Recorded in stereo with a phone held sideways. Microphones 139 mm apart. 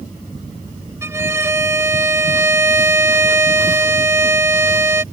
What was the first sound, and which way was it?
A violin, 20° right (ahead or behind).